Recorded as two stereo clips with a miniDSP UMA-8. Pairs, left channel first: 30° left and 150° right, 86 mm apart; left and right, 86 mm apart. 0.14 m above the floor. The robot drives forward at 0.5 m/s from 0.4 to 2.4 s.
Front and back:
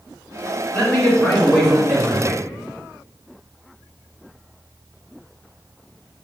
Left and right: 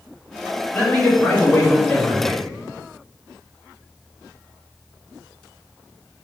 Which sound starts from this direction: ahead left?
A man speaking, at 0.7 s.